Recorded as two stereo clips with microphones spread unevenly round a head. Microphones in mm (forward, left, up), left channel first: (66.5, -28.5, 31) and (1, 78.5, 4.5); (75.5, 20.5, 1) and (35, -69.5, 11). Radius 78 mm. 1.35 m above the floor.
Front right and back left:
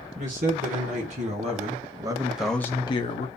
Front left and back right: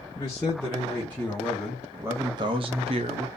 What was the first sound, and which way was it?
A man speaking, 130° left.